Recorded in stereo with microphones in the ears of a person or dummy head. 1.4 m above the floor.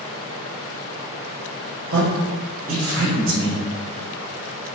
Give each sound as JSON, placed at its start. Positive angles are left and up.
{"t": 1.9, "sound": "a man speaking", "side_deg": -80, "distance_m": 1.2}